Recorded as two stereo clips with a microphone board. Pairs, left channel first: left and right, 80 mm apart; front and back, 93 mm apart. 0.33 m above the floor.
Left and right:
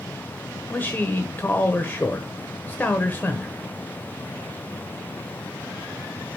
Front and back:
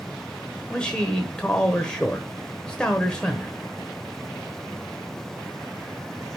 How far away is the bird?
No bird in this recording.